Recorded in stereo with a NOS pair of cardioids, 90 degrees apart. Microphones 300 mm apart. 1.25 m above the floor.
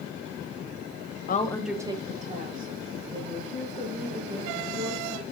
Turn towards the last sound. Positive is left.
turn(degrees=-40)